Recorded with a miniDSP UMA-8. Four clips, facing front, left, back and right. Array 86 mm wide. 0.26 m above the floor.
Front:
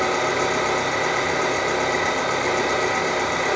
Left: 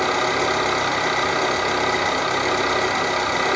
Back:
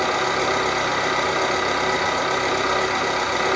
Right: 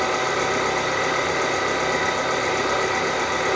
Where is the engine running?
130° left, 1.1 m.